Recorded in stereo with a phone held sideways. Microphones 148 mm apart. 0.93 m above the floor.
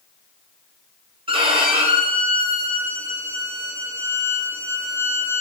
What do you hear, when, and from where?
1.3 s a violin: 40° right (ahead or behind), 1.2 m